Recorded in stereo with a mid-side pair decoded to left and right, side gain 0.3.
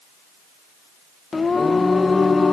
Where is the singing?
40° left, 1.7 m.